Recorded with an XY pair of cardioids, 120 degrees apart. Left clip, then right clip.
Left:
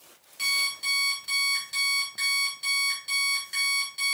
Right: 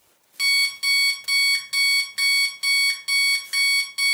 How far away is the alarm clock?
About 1.2 m.